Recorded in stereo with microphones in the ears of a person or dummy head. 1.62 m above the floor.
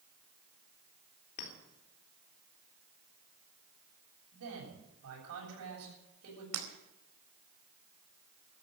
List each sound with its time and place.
1.4 s a clink: 45° left (ahead or behind), 3.5 m
4.3 s a man speaking: 85° right, 7 m
6.5 s breaking glass: 80° right, 4.5 m